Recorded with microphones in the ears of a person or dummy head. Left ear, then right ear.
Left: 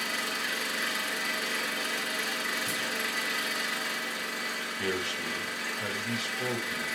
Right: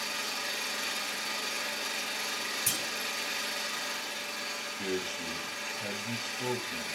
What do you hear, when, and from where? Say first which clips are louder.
0.0 s an engine running: left 3 dB; 50° left (ahead or behind), 3.5 m
2.7 s a clunk: left 1 dB; 45° right (ahead or behind), 2.5 m
4.8 s a man speaking: left 4 dB; 65° left (ahead or behind), 1.6 m